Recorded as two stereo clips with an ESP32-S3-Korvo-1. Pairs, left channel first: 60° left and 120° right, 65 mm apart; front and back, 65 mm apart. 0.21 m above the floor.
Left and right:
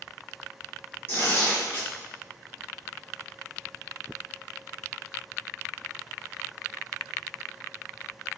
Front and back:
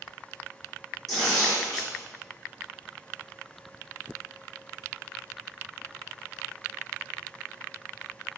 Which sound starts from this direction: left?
Tearing paper, at 1.1 s.